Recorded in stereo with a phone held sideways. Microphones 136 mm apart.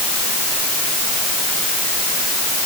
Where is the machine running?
I don't hear a machine running.